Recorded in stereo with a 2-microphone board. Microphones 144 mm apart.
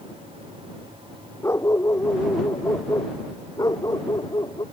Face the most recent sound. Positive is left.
turn(degrees=25)  # may be behind; listen again after turning